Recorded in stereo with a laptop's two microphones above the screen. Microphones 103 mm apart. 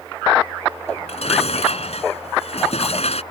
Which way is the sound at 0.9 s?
90° left.